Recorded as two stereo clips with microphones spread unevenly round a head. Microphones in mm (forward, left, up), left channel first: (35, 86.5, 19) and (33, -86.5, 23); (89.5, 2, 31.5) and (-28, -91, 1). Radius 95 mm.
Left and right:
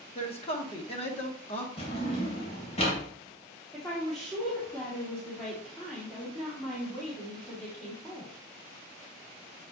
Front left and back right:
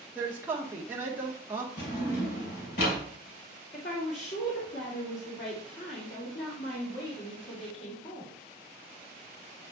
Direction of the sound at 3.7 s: 5° left.